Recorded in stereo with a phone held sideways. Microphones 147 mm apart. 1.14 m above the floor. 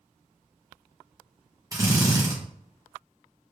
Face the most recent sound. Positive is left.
turn(degrees=-25)  # may be behind; listen again after turning